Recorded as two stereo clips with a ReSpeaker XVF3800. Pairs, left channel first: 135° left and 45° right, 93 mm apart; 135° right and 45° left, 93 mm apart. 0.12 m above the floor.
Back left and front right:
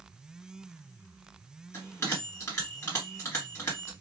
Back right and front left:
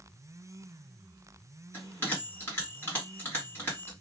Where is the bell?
Straight behind, 2 m.